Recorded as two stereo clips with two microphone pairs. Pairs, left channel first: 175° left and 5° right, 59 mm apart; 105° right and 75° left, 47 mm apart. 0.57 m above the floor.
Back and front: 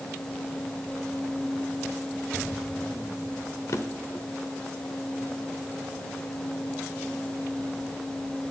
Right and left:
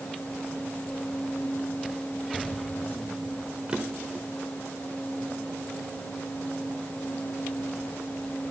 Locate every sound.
3.7 s a drawer: 140° left, 0.8 m